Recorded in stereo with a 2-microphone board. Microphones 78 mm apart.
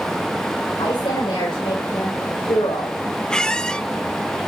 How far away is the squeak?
About 0.5 m.